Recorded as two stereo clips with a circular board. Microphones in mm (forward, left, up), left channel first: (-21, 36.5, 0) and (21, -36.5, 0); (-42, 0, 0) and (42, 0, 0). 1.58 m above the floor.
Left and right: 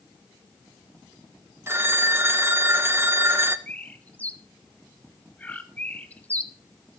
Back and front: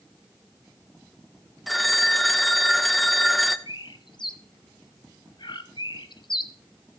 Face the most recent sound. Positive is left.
turn(degrees=-170)